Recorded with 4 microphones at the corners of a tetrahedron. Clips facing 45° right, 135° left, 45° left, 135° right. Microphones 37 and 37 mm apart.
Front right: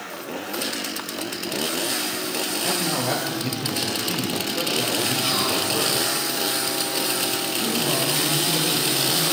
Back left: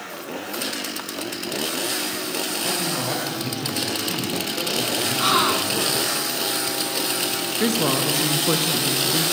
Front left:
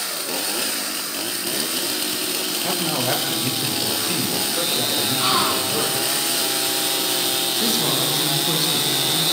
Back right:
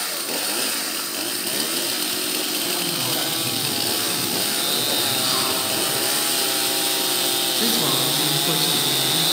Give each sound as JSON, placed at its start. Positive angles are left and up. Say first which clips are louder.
{"t": 2.6, "sound": "a man speaking", "louder": "front right 3 dB, front left 3 dB", "azimuth_deg": 35, "distance_m": 7.5}
{"t": 5.2, "sound": "a gasp", "louder": "back left 4 dB, front left 3 dB", "azimuth_deg": 95, "distance_m": 2.5}
{"t": 7.6, "sound": "a woman speaking", "louder": "back left 4 dB, even", "azimuth_deg": 140, "distance_m": 4.0}